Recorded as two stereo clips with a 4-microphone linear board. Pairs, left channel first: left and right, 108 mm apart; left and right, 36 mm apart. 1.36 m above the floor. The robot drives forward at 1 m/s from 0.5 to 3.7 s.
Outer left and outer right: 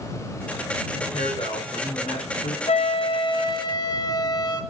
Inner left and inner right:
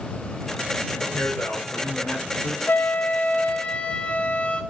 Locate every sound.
1.0 s a man speaking: 55° left (ahead or behind), 5.5 m; by 2.6 s 75° left (ahead or behind), 4.5 m
2.7 s a flute: 70° left (ahead or behind), 1.2 m; by 4.6 s 40° left (ahead or behind), 1.7 m